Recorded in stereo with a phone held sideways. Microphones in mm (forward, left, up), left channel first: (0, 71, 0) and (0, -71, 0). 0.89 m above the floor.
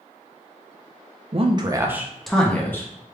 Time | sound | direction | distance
1.3 | a man speaking | 45° right (ahead or behind) | 0.6 m